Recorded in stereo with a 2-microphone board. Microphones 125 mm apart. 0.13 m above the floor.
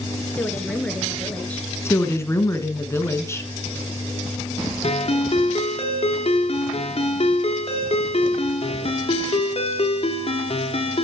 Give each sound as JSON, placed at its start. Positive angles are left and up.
{"t": 0.3, "sound": "a woman speaking", "side_deg": 10, "distance_m": 1.6}
{"t": 1.9, "sound": "a woman speaking", "side_deg": 20, "distance_m": 1.2}
{"t": 4.8, "sound": "a ringtone", "side_deg": 50, "distance_m": 1.6}